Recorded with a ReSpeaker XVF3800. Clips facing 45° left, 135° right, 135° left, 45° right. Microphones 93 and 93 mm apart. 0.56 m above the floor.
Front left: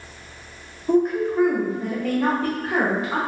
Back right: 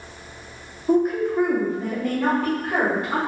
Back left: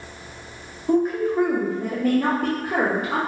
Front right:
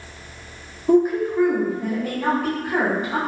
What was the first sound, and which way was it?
A woman speaking, 65° right.